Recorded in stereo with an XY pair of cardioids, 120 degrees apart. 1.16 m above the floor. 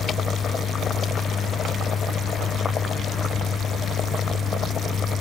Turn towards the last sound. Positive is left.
turn(degrees=45)